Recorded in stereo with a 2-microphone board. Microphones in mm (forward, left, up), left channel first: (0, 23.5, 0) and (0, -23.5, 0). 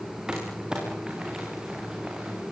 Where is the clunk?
I don't hear a clunk.